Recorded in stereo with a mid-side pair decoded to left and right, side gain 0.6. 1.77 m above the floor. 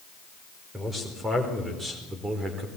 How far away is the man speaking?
About 5 m.